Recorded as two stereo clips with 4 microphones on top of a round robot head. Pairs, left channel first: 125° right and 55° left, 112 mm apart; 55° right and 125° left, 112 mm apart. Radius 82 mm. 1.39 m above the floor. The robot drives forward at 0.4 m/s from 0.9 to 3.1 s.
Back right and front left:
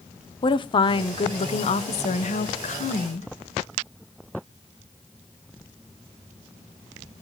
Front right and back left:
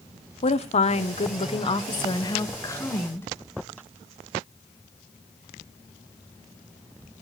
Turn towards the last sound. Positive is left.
turn(degrees=-125)